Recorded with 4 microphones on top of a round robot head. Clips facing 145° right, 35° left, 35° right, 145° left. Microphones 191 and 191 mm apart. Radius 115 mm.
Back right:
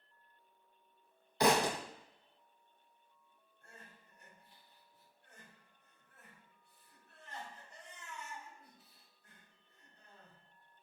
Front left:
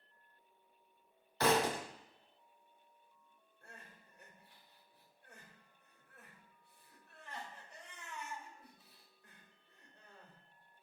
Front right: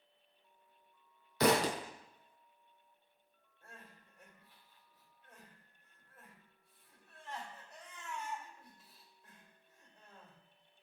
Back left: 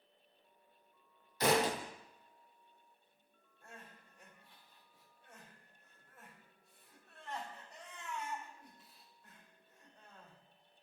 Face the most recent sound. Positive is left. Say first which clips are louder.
# front left 1 dB, back left 2 dB
turn(degrees=55)